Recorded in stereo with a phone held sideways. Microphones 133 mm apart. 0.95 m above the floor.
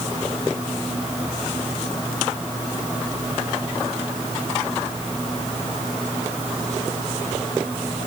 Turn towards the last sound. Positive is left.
No sound to turn to.